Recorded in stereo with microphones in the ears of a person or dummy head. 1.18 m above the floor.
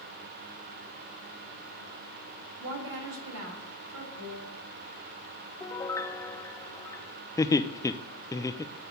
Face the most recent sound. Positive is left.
turn(degrees=20)  # may be behind; listen again after turning